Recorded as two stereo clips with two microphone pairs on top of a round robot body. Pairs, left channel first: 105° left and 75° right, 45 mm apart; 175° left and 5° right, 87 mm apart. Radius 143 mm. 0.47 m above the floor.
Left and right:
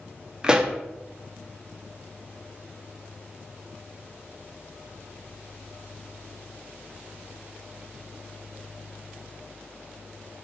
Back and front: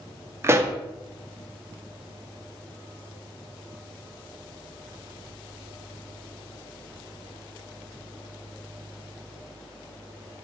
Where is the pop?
15° right, 0.8 m.